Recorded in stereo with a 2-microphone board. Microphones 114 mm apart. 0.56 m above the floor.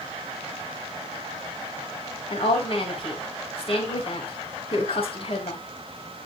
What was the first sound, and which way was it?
A woman speaking, 55° left (ahead or behind).